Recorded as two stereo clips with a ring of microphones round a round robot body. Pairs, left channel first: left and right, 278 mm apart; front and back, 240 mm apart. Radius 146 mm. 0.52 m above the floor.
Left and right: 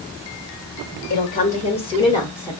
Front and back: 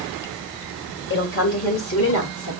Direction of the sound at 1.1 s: 35° left.